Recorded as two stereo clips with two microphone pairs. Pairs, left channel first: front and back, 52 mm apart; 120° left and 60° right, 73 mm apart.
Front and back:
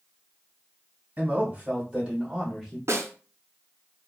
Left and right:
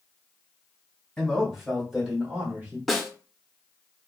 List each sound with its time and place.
1.2 s a man speaking: 165° right, 1.7 m; by 2.8 s 90° right, 1.6 m
2.9 s a snare drum: 155° right, 0.8 m